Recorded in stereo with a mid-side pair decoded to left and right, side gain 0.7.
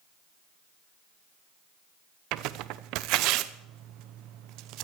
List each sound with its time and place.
2.3 s tearing paper: 65° right, 0.9 m